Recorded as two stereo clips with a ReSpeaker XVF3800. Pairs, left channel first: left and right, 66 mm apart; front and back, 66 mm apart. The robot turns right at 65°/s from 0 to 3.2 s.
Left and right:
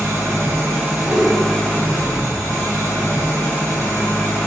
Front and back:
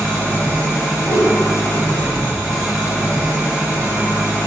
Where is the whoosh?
35° right, 0.8 m; by 1.3 s 15° right, 0.8 m.